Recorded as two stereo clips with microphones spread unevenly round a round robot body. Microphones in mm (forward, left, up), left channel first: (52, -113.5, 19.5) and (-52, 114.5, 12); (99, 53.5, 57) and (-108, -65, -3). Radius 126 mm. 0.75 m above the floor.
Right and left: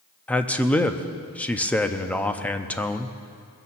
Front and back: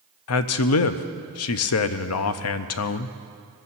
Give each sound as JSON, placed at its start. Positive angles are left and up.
{"t": 0.3, "sound": "a man speaking", "azimuth_deg": 20, "distance_m": 0.6}